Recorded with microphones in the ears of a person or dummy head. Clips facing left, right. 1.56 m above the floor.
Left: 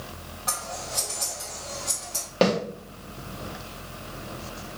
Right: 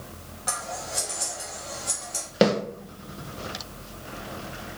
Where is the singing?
No singing in this recording.